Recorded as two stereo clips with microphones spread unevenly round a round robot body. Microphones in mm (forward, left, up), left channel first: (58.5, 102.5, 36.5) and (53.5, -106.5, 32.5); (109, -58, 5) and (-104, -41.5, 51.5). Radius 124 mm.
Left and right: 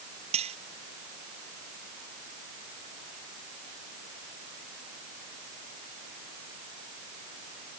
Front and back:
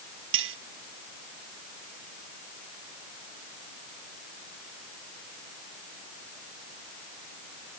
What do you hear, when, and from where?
0.3 s cutlery clinking: 160° right